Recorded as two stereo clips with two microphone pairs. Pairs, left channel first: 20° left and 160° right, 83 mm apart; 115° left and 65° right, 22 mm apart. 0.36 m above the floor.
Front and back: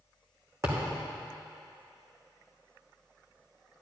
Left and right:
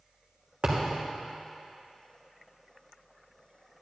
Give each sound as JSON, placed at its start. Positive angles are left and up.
{"t": 0.6, "sound": "a thud", "azimuth_deg": -105, "distance_m": 2.5}